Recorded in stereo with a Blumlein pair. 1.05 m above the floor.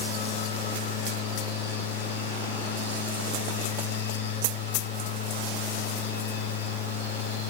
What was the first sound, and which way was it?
A machine running, 65° left.